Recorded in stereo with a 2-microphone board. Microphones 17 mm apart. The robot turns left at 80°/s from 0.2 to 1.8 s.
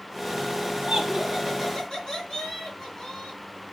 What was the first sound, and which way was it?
Laughter, 140° right.